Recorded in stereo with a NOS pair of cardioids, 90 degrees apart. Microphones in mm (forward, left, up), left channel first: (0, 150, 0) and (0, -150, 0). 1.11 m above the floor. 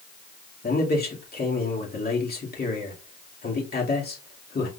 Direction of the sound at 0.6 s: 30° left.